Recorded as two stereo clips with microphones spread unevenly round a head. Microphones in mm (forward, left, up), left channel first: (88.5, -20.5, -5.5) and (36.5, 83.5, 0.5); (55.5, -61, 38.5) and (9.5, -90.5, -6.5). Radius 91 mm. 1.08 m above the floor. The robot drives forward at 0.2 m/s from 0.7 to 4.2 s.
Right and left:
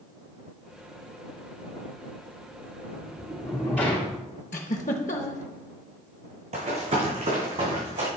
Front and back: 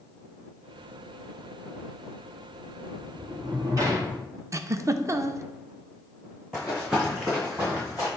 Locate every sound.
2.9 s a sliding door: 155° right, 2 m
4.5 s a giggle: 110° right, 0.6 m
6.5 s running footsteps: 105° left, 3.5 m; by 8.1 s 130° left, 3.5 m